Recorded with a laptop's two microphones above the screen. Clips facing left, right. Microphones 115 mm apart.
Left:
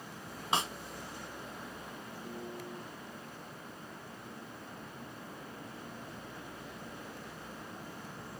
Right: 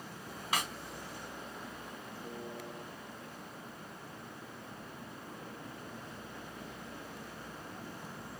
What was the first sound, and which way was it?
A snare drum, 25° left (ahead or behind).